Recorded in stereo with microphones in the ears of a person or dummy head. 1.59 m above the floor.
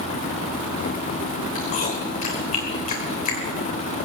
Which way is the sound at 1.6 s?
35° left (ahead or behind).